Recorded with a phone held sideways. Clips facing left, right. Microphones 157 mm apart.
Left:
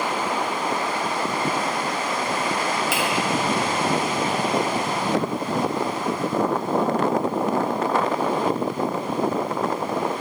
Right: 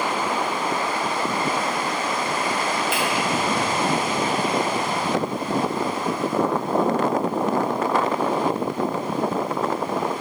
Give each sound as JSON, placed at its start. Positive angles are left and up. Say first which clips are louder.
{"t": 2.9, "sound": "a finger snap", "louder": "even", "side_deg": 80, "distance_m": 1.9}